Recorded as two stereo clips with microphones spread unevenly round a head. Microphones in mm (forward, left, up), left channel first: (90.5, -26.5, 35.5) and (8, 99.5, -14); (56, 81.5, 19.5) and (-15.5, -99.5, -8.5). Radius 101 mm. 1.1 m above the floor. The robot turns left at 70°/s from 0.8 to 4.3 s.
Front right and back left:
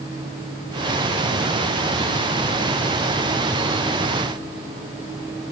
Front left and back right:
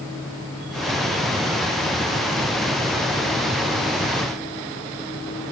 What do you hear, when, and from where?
Only background noise.